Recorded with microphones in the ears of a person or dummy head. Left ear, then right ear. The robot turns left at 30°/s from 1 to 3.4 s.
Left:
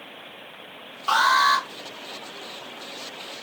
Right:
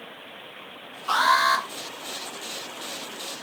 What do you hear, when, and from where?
1.1 s an alarm: 20° left (ahead or behind), 1.2 m; by 1.6 s centre (ahead or behind), 1.2 m